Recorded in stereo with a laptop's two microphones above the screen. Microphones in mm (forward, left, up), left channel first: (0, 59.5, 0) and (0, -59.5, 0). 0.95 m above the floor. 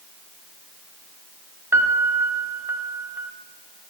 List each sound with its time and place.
1.7 s a piano: 20° right (ahead or behind), 0.8 m